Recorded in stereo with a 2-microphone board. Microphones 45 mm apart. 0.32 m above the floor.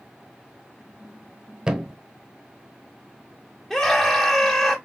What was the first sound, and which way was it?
A thud, 15° right (ahead or behind).